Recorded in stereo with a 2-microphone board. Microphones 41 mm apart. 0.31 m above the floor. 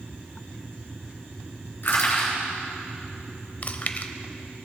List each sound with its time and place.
1.8 s crushing: 55° left (ahead or behind), 3.5 m
3.6 s chewing: 40° left (ahead or behind), 0.6 m